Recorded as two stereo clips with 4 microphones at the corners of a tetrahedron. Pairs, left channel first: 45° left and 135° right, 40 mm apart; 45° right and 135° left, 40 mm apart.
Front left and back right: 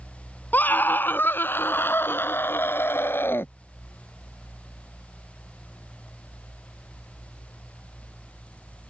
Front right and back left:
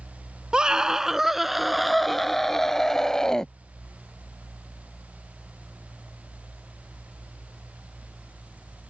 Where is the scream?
70° left; by 3.5 s 30° left.